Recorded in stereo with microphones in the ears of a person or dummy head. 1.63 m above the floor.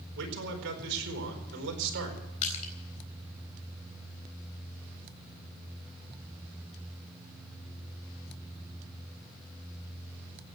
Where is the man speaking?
65° right (ahead or behind), 4.5 m.